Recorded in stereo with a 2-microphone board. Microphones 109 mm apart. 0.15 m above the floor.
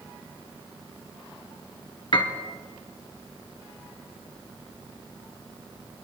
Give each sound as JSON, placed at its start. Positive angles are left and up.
{"t": 2.1, "sound": "a piano", "side_deg": 50, "distance_m": 1.6}